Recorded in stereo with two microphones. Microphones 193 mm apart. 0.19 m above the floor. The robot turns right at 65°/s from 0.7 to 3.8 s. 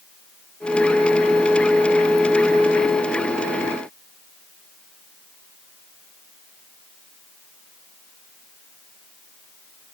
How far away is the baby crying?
I don't hear a baby crying.